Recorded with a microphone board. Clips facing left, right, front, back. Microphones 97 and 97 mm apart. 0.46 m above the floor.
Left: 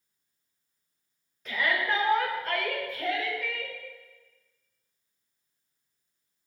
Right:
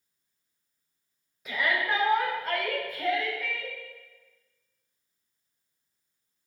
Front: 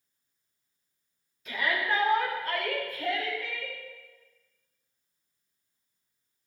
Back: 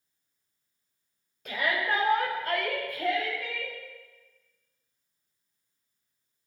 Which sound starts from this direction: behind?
A shout, at 1.4 s.